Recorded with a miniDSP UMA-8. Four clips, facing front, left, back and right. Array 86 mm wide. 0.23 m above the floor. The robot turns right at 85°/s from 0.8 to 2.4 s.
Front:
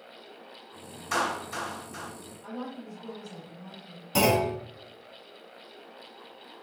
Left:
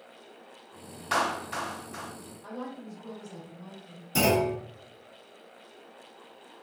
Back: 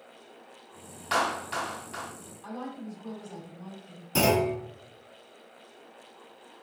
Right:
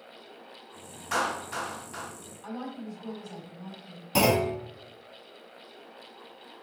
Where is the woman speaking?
100° right, 1.4 m.